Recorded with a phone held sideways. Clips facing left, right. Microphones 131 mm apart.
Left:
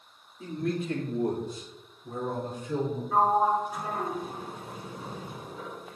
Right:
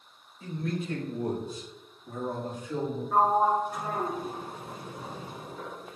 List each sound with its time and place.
0.4 s a man speaking: 70° left (ahead or behind), 2 m; by 3.0 s 60° left (ahead or behind), 3 m
3.1 s a sliding door: centre (ahead or behind), 1.2 m